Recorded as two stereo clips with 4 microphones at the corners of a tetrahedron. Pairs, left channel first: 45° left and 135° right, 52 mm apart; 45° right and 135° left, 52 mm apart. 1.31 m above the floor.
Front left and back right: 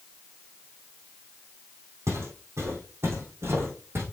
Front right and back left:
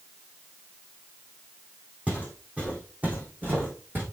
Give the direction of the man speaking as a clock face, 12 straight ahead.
No man speaking in this recording.